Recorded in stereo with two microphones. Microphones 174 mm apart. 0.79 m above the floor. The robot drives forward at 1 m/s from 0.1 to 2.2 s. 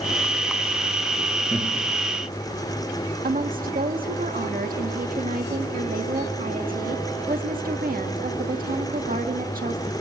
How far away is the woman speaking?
About 1.6 m.